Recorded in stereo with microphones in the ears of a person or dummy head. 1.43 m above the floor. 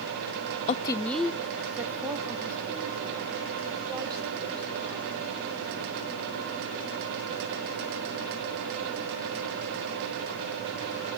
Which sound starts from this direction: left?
A woman speaking, at 0.7 s.